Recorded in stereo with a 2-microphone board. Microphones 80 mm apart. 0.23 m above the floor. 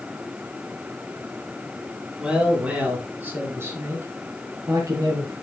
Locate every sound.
2.2 s a man speaking: 10° right (ahead or behind), 4 m; by 5.3 s 50° right (ahead or behind), 5 m